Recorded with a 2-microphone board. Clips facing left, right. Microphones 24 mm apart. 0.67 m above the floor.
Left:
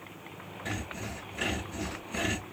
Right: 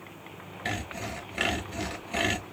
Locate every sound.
0.7 s sawing: 75° right (ahead or behind), 1.0 m